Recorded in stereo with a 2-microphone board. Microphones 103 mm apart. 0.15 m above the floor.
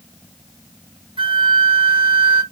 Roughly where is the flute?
Right.